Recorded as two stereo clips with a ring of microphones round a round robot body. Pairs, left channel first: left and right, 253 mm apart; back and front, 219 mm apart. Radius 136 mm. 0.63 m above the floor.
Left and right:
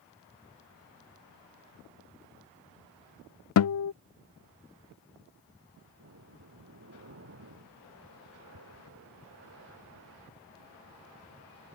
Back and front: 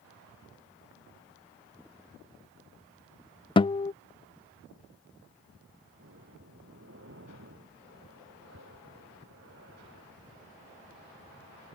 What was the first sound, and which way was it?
A guitar, 110° left.